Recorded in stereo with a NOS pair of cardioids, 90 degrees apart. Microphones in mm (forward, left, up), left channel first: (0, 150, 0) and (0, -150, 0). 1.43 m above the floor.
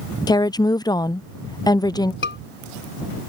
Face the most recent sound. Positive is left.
turn(degrees=40)